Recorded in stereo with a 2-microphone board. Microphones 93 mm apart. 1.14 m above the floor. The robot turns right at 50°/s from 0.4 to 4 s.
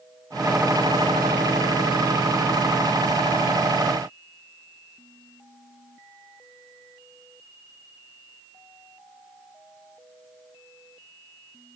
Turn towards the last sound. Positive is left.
No sound to turn to.